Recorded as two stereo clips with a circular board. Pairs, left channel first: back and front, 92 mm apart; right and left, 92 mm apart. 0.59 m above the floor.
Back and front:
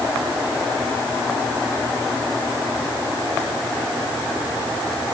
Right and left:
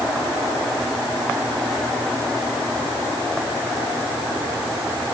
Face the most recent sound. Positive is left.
No sound to turn to.